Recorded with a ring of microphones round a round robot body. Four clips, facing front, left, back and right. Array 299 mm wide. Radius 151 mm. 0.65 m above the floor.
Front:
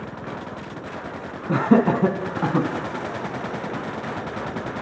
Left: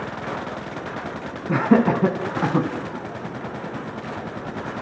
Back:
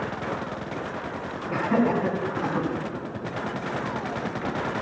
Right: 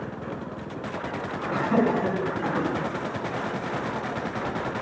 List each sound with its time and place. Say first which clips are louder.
1.5 s laughter: left 5 dB, front 5 dB; 45° left, 5.5 m; by 2.7 s 50° left, 4.5 m